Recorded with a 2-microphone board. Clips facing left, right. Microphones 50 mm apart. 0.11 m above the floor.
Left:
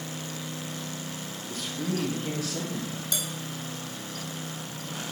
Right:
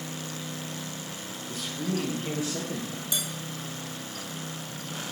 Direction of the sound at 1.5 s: 5° right (ahead or behind).